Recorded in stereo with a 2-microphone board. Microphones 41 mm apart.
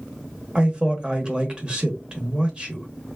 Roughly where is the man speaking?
Right.